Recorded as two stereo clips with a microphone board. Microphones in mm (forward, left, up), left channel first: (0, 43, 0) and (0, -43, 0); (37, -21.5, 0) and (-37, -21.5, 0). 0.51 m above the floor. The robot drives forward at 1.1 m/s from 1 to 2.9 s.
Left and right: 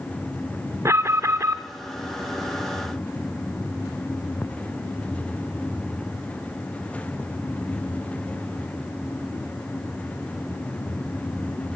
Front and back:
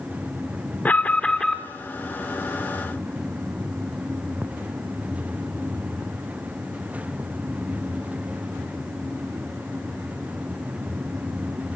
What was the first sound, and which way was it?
An alarm, 60° right.